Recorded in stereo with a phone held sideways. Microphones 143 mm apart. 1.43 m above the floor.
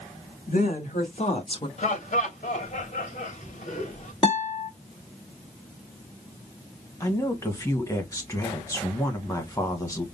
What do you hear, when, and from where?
0.5 s a woman speaking: 65° left (ahead or behind), 3 m; by 1.7 s 35° left (ahead or behind), 1.7 m
1.8 s laughter: 55° left (ahead or behind), 2.5 m
4.2 s a guitar: 40° left (ahead or behind), 2 m
7.0 s a woman speaking: 20° left (ahead or behind), 1.7 m